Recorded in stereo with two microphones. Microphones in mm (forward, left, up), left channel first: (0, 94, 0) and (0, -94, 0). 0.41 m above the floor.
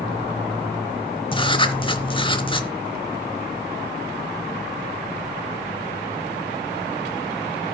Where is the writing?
25° left (ahead or behind), 0.8 m.